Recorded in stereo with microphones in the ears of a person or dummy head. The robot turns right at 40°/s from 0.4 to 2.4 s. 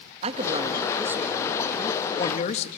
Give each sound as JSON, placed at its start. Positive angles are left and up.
{"t": 0.2, "sound": "a man speaking", "azimuth_deg": -40, "distance_m": 1.9}